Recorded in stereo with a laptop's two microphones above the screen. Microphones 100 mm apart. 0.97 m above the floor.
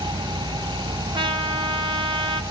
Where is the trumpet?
55° right (ahead or behind), 1.6 m.